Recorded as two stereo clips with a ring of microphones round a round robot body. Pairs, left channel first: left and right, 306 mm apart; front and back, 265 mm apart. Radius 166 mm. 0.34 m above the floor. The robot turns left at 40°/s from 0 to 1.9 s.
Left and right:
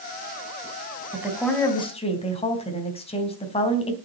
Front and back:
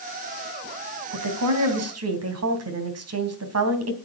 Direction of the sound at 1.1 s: 170° right.